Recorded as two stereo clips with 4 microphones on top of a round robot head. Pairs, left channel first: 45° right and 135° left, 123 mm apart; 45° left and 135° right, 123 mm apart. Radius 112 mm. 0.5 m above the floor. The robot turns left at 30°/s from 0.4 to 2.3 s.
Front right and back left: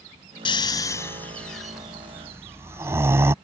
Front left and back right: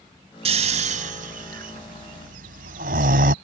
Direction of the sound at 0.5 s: 100° right.